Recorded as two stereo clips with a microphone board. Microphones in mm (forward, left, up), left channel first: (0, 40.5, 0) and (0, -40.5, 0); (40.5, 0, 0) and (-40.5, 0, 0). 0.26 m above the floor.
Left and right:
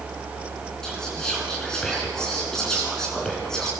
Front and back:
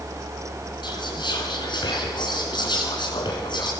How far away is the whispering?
About 3 m.